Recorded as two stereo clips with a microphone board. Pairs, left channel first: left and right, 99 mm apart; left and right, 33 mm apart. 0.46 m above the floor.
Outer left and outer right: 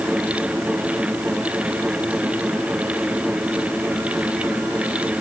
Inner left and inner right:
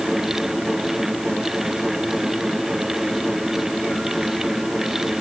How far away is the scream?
No scream in this recording.